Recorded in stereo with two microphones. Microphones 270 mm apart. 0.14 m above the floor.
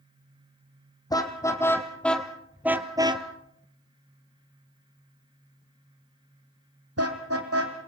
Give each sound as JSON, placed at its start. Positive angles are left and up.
{"t": 1.1, "sound": "a car horn", "side_deg": 15, "distance_m": 3.0}